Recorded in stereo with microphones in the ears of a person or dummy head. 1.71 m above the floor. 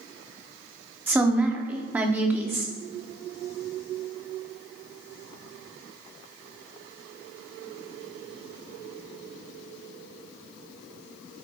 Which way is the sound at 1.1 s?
15° right (ahead or behind).